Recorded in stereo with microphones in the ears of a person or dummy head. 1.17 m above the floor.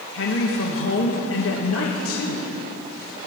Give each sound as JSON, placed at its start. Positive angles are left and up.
{"t": 0.1, "sound": "a woman speaking", "side_deg": 65, "distance_m": 1.4}